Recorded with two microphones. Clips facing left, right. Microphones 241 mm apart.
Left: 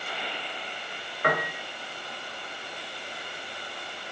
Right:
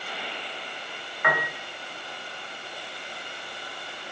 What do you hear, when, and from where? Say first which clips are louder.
1.2 s a piano: left 2 dB; 40° left (ahead or behind), 0.5 m